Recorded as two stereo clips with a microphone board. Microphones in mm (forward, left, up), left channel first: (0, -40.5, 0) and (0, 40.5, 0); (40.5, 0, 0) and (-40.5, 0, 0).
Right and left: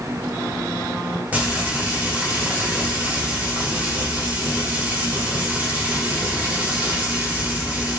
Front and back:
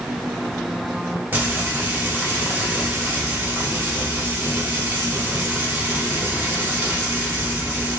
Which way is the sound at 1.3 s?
140° left.